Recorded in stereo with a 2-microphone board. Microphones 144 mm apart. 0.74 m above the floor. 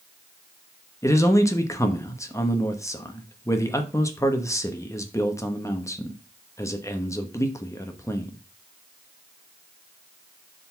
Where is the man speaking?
20° left (ahead or behind), 1.0 m.